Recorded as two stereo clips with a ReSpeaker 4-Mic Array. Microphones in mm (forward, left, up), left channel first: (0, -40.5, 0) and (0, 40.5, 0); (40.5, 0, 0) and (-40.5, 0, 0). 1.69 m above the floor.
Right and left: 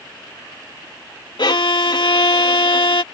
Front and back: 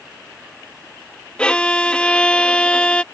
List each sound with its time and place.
1.4 s a violin: 75° right